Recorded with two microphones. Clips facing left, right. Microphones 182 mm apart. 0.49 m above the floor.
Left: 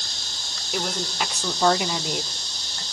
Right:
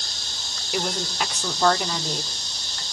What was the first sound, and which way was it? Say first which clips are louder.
A woman speaking: right 1 dB; 5° right (ahead or behind).